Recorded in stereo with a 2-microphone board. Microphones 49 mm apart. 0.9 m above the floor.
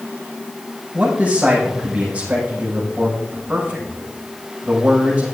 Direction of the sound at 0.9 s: 25° right (ahead or behind).